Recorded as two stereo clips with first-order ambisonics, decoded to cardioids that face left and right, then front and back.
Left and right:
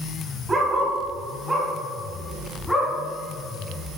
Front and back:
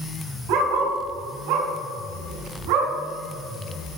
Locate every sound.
0.5 s a dog barking: 165° right, 2 m; by 2.9 s straight behind, 3.5 m